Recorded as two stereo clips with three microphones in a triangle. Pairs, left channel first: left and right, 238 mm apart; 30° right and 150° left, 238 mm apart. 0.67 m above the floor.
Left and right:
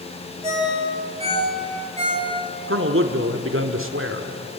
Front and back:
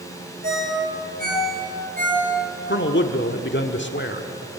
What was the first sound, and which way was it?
A ringtone, 155° right.